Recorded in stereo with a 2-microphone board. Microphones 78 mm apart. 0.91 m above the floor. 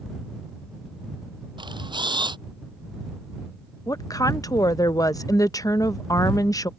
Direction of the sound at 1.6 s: 80° right.